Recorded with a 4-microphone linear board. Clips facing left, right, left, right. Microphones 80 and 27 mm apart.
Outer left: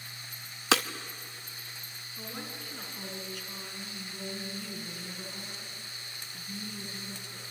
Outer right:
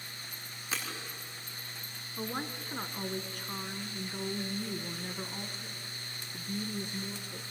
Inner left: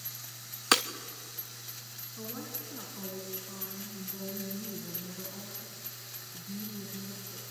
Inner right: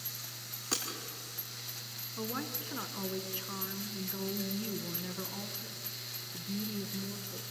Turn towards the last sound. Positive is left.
turn(degrees=-45)  # may be behind; listen again after turning